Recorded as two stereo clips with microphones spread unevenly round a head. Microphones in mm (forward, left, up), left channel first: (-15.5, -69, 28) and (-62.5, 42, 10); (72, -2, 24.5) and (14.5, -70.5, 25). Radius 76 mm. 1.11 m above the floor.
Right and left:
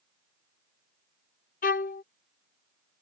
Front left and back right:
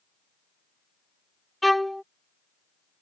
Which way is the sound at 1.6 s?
40° right.